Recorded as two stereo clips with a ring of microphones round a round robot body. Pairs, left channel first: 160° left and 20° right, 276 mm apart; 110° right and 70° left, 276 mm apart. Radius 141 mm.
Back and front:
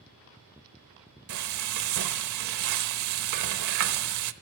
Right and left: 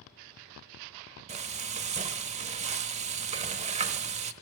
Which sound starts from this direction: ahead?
Frying, at 1.3 s.